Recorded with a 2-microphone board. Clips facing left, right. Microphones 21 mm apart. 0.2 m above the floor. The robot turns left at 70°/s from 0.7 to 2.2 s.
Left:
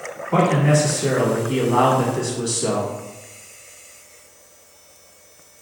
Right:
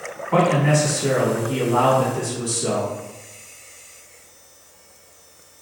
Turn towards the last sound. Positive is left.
turn(degrees=100)